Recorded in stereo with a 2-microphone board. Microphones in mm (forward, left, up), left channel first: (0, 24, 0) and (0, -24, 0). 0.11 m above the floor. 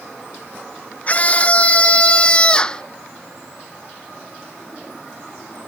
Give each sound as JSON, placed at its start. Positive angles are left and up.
{"t": 1.1, "sound": "a scream", "side_deg": 35}